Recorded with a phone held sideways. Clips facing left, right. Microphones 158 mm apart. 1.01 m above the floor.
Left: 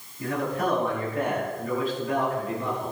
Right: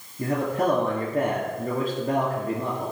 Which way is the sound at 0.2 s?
45° right (ahead or behind).